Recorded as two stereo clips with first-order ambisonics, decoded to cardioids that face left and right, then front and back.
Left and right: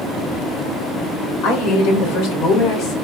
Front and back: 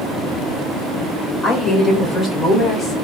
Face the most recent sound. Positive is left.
turn(degrees=60)